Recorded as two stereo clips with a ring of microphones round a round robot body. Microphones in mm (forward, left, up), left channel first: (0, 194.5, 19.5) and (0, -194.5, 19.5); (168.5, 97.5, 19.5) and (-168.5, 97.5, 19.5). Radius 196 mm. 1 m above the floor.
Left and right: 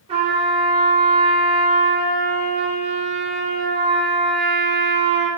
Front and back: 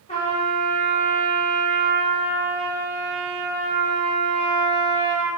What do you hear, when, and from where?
0.1 s a trumpet: 40° right, 0.7 m